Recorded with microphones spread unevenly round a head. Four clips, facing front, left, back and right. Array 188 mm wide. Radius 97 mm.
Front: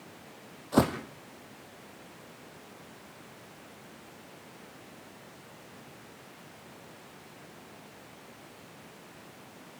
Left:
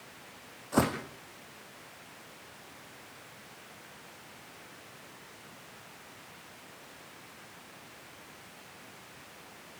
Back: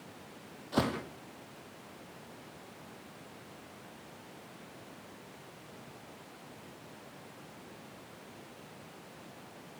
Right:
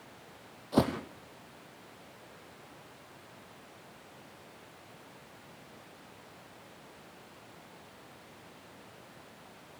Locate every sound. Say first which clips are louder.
0.7 s footsteps: even, front 6 dB; 10° right, 3 m